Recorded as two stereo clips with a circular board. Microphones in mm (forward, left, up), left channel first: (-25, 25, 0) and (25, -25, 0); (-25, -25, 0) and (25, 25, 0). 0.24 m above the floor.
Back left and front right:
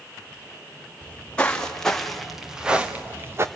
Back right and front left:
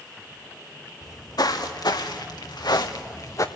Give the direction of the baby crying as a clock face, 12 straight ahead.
No baby crying in this recording.